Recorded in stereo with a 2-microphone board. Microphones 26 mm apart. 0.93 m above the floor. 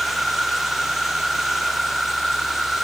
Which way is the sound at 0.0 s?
5° right (ahead or behind).